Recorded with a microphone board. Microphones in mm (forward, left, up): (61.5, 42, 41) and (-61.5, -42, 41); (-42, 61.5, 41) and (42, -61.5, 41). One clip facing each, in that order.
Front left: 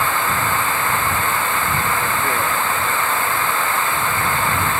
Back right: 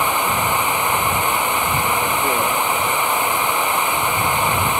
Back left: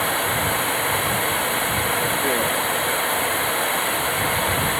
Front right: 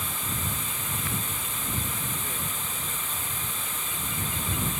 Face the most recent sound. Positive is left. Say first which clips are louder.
# back right 1 dB, back left 12 dB
turn(degrees=140)